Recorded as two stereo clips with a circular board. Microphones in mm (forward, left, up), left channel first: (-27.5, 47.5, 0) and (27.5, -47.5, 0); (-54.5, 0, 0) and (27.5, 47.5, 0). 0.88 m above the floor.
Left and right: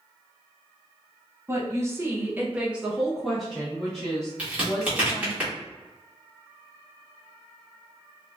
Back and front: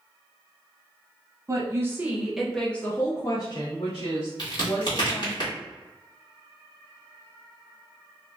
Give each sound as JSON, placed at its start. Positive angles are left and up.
{"t": 1.5, "sound": "a woman speaking", "azimuth_deg": -5, "distance_m": 0.9}
{"t": 4.4, "sound": "a crack", "azimuth_deg": -130, "distance_m": 1.5}